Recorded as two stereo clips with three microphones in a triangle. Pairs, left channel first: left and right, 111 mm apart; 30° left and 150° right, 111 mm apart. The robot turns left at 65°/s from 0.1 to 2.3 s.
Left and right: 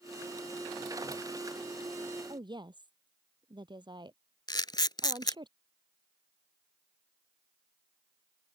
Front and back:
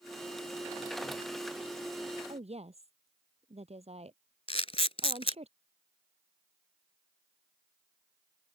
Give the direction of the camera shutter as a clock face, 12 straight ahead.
11 o'clock.